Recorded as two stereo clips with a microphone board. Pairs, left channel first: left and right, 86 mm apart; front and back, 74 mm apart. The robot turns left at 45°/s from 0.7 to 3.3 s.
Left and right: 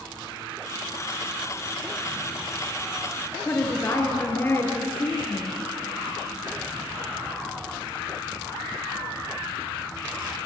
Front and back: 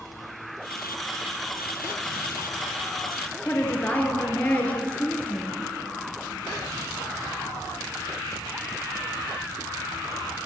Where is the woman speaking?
50° left, 1.3 m.